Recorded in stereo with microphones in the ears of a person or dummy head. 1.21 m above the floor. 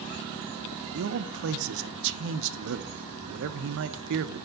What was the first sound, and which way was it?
A man speaking, 75° right (ahead or behind).